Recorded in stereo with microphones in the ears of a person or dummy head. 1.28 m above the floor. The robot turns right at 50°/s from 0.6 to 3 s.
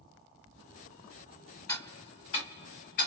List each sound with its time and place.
1.7 s ticking: 15° left (ahead or behind), 1.4 m; by 3.1 s 40° left (ahead or behind), 1.4 m